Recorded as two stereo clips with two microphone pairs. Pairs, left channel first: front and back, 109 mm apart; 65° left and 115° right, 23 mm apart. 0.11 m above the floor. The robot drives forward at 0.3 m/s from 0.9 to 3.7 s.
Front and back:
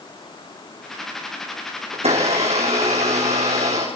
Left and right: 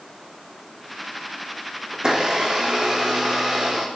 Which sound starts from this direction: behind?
A blender, at 1.9 s.